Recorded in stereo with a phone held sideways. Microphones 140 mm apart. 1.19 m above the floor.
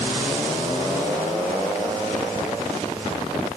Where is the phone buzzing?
No phone buzzing in this recording.